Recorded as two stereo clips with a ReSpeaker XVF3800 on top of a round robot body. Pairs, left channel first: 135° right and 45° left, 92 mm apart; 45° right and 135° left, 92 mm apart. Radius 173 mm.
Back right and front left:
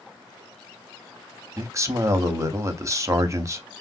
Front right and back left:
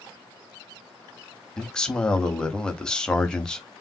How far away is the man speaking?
About 0.9 m.